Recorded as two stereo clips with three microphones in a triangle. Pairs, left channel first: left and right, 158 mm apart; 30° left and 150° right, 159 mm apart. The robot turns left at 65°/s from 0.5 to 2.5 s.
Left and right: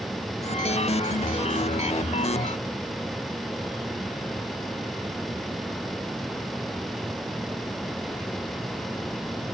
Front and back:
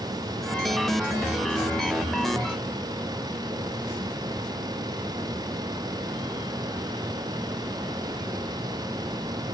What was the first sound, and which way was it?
Only background noise.